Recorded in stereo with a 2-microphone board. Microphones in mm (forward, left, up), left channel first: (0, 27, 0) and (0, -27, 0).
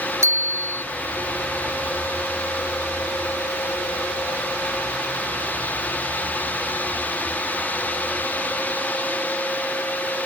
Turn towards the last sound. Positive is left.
turn(degrees=-55)  # may be behind; listen again after turning